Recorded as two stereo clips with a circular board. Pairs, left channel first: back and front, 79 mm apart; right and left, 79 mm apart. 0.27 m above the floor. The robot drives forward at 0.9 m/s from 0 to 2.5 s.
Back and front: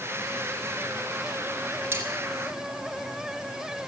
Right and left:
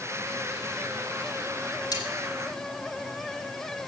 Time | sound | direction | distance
1.9 | cutlery clinking | 60° right | 2.5 m